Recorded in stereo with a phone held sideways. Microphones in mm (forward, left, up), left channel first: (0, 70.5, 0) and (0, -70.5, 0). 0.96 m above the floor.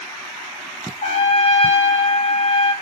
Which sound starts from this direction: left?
A trumpet, at 1.0 s.